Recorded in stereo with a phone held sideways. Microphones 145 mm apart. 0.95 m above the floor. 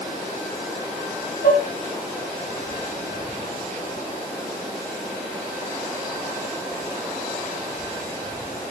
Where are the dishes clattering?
90° left, 4 m.